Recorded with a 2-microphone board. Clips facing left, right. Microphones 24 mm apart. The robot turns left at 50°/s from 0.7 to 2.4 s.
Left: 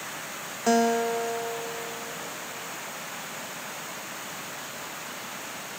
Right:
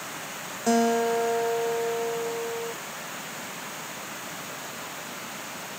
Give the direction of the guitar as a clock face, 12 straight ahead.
11 o'clock.